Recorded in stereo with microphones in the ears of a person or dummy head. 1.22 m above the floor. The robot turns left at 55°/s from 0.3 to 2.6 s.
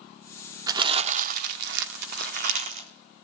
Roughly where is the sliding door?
No sliding door in this recording.